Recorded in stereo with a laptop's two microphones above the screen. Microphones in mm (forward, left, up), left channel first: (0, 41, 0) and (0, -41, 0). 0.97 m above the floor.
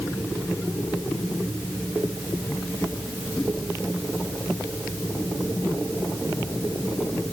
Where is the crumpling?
I don't hear crumpling.